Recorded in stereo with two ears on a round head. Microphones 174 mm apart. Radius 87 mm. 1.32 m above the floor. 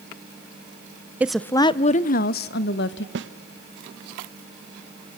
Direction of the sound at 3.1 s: 65° right (ahead or behind).